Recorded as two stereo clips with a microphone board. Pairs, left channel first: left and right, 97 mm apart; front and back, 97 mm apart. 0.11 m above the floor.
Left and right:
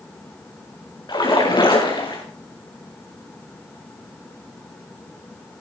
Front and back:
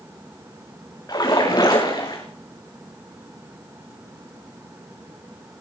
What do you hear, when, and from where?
1.1 s a splash: 50° left, 5 m